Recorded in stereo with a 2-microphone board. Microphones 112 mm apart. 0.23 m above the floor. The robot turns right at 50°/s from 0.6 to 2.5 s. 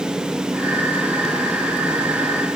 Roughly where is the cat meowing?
No cat meowing in this recording.